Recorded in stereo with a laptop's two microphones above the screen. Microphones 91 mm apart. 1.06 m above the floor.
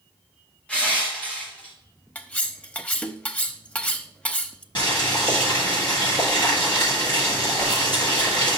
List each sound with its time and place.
0.7 s crushing: 15° left (ahead or behind), 1.6 m
2.1 s cutlery clinking: 15° left (ahead or behind), 0.7 m
4.8 s boiling: 55° left (ahead or behind), 4 m
7.6 s a whoosh: 60° left (ahead or behind), 3.5 m